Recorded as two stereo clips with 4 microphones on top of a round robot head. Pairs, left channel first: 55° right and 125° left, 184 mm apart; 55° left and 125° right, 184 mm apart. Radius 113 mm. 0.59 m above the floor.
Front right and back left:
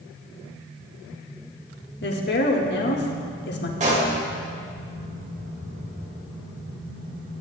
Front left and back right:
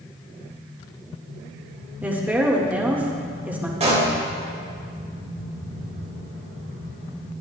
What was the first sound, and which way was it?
A woman speaking, 45° right.